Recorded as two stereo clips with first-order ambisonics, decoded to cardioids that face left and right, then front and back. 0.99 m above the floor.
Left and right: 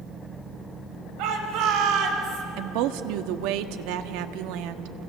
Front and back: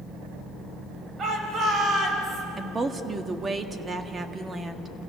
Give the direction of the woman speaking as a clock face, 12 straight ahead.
3 o'clock.